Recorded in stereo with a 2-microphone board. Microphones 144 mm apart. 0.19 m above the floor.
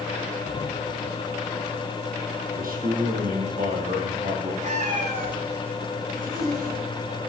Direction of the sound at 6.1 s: 70° right (ahead or behind).